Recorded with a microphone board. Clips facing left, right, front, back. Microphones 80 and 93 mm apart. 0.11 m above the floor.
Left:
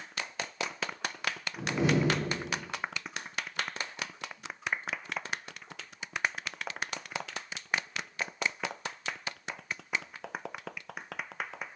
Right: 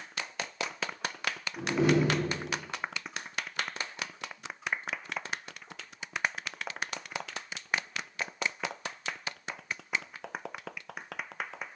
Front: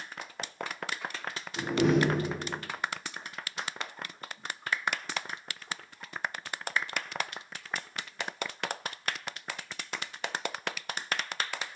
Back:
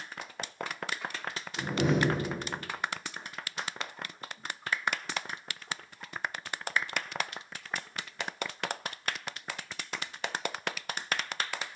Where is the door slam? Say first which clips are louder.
Right 3 dB, front 3 dB; 5° right, 8.5 m.